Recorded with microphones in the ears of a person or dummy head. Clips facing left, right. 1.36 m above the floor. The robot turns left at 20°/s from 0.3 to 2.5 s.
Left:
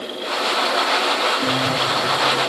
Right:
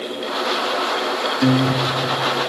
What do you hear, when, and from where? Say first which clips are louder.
1.4 s a guitar: right 5 dB; 50° right (ahead or behind), 0.9 m; by 2.5 s 35° right (ahead or behind), 0.9 m